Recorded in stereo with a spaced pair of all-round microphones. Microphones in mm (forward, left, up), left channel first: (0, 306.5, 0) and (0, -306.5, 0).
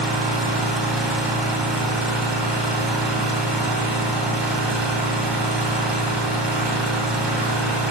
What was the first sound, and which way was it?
An engine running, 45° right (ahead or behind).